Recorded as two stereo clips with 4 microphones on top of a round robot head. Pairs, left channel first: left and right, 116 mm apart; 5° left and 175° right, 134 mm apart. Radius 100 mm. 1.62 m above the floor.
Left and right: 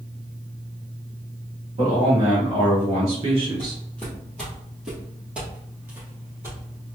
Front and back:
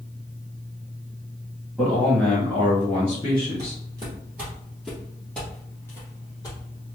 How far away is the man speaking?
About 1.8 m.